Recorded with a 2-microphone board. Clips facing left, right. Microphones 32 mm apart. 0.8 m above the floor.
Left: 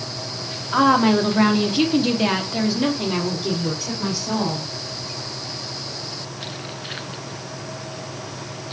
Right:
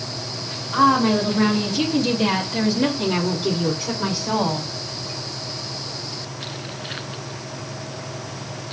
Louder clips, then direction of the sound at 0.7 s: Left 1 dB; 65° left (ahead or behind).